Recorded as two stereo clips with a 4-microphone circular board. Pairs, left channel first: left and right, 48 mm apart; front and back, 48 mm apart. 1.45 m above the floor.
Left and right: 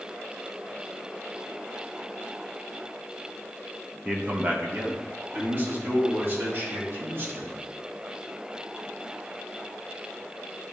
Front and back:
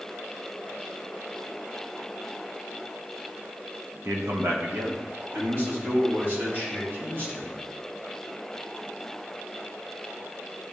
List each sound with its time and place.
4.0 s a man speaking: 155° right, 1.4 m; by 7.5 s 130° right, 5 m